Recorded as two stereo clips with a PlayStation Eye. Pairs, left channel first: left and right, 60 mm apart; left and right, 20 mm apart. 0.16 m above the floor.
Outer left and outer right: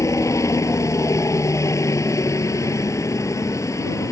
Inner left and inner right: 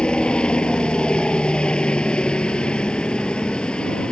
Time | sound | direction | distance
0.0 | a helicopter | 55° left (ahead or behind) | ?